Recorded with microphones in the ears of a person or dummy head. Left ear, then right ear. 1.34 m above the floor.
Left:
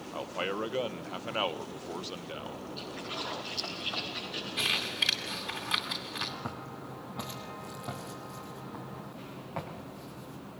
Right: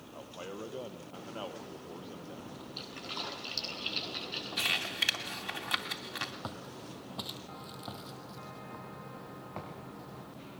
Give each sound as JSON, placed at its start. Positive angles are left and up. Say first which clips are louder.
{"t": 0.1, "sound": "a man speaking", "louder": "left 10 dB", "side_deg": 60, "distance_m": 1.1}
{"t": 2.8, "sound": "a splash", "louder": "even", "side_deg": -30, "distance_m": 8.5}
{"t": 4.6, "sound": "crumpling", "louder": "left 2 dB", "side_deg": -20, "distance_m": 3.0}
{"t": 6.4, "sound": "footsteps", "louder": "left 3 dB", "side_deg": -45, "distance_m": 2.0}